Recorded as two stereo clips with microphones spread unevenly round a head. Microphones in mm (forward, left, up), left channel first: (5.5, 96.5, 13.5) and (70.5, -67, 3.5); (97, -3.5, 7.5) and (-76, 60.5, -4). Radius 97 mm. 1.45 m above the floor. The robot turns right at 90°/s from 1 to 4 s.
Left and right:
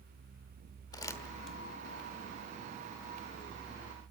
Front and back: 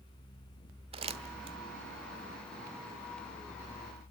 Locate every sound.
0.9 s crumpling: 145° left, 1.2 m; by 1.6 s 165° right, 1.2 m